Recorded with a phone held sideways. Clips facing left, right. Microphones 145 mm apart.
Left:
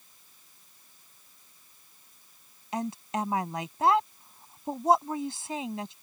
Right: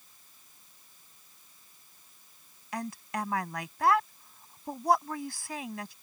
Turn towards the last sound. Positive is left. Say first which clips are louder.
# left 4 dB
turn(degrees=25)  # may be behind; listen again after turning